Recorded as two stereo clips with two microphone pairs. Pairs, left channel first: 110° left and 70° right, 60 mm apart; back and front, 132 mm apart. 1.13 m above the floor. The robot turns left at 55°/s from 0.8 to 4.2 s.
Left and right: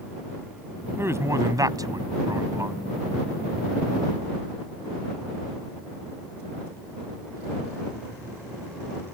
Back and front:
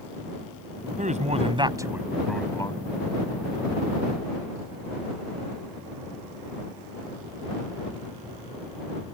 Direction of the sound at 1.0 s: 20° right.